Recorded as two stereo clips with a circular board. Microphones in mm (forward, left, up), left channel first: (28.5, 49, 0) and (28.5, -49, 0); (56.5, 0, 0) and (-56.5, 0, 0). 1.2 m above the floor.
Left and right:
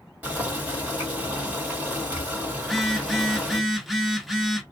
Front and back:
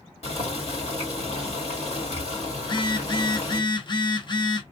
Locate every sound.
0.2 s boiling: 15° right, 2.5 m
2.6 s a phone buzzing: straight ahead, 0.9 m